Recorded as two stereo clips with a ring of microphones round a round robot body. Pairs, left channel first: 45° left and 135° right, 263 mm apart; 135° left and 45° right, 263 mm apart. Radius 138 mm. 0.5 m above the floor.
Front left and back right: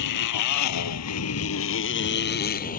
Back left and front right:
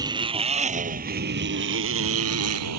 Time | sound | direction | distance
0.0 | a motorcycle | 30° left | ?